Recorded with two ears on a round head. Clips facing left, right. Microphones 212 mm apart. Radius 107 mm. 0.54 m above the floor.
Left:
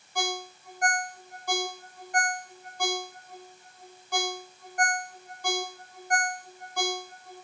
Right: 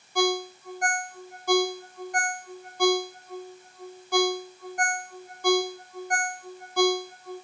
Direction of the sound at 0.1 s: 65° right (ahead or behind).